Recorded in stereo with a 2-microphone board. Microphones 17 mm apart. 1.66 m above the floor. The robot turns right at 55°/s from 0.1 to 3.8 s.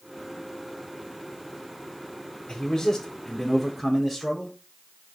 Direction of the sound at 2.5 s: 125° left.